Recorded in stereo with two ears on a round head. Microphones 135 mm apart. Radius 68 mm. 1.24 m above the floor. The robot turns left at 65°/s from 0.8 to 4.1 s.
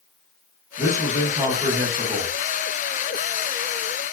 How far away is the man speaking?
About 1.7 m.